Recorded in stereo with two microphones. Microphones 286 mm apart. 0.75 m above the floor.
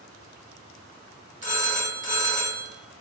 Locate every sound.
1.4 s a phone ringing: 25° left (ahead or behind), 1.0 m